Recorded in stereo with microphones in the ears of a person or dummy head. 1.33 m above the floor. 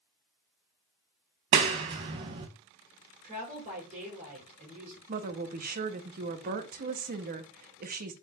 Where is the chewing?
No chewing in this recording.